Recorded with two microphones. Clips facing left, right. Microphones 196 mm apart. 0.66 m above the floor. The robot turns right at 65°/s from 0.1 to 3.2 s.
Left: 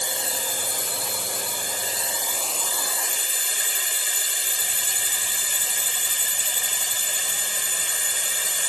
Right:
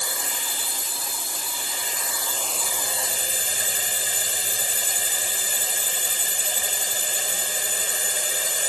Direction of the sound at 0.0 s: 25° left.